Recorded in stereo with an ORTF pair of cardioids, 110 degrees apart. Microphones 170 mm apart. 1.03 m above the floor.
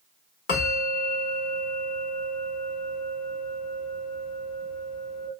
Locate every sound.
0.5 s a bell: 60° left, 1.6 m